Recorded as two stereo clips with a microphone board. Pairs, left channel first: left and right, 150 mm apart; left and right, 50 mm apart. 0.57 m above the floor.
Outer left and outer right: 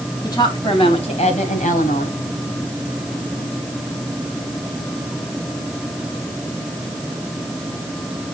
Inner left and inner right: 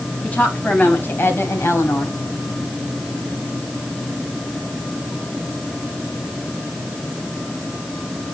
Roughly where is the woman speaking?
Left.